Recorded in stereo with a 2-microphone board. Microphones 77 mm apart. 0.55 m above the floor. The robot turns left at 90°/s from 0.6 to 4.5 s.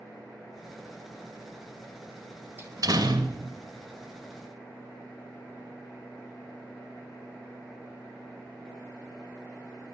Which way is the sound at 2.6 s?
30° right.